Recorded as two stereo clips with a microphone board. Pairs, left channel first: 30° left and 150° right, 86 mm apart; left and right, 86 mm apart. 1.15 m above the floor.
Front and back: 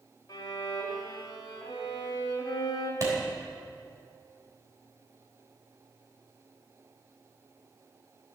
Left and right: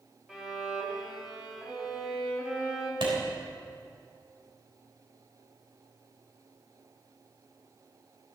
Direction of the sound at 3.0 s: 105° right.